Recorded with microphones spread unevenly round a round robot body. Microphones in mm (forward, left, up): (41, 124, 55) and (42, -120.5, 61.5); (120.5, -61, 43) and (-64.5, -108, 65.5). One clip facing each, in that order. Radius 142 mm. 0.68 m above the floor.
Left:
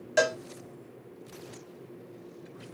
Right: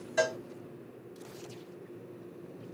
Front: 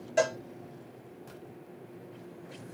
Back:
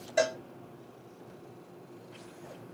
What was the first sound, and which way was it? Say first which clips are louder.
A cowbell: left 4 dB, front 1 dB; 95° left.